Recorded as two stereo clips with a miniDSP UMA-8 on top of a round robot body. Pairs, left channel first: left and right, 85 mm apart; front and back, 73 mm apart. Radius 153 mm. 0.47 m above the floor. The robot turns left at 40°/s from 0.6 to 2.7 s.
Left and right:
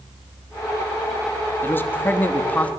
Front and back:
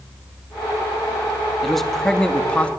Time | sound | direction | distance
1.6 | a man speaking | 90° left | 1.4 m